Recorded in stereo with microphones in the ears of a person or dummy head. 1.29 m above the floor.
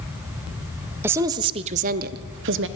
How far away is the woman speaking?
About 0.7 m.